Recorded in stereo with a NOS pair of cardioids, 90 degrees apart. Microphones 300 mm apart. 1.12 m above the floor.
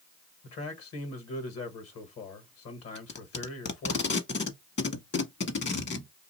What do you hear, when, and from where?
0.4 s a man speaking: 55° left, 1.3 m
3.0 s tape being pulled: 35° left, 1.2 m